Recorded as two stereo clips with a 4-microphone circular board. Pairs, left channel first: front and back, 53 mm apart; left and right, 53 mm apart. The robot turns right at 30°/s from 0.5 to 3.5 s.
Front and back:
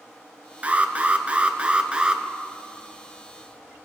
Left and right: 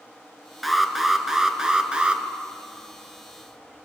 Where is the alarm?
Straight behind, 1.0 m; by 2.2 s 130° right, 1.0 m.